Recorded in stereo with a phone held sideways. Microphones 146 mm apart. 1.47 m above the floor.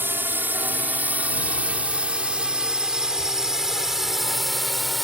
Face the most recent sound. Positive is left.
turn(degrees=0)  # may be behind; listen again after turning